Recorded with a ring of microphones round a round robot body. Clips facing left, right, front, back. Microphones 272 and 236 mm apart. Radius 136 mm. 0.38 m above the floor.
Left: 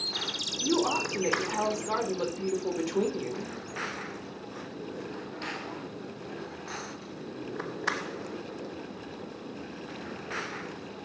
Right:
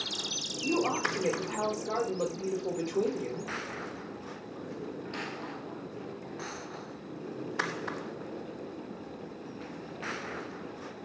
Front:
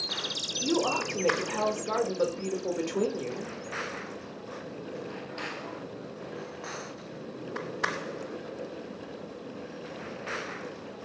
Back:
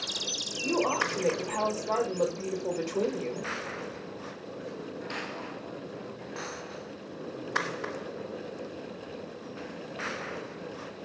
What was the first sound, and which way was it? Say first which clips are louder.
A woman speaking: left 2 dB, front 1 dB; 60° left.